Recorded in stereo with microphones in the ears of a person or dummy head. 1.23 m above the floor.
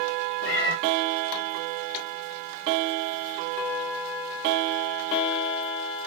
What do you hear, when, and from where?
0.4 s a cat meowing: 65° left (ahead or behind), 0.7 m